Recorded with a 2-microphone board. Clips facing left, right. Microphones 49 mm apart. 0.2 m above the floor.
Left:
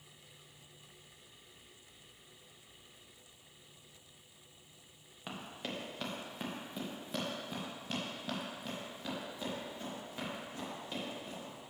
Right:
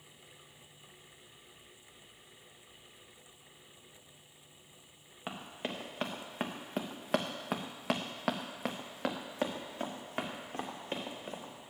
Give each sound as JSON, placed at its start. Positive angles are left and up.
{"t": 5.3, "sound": "running footsteps", "side_deg": -20, "distance_m": 1.7}